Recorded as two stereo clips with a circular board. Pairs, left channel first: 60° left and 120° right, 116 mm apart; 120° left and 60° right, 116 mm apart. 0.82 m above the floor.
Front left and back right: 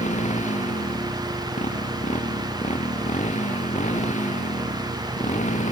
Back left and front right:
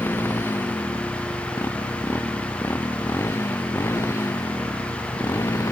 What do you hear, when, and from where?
0.0 s a motorcycle: 50° left; by 5.7 s 55° left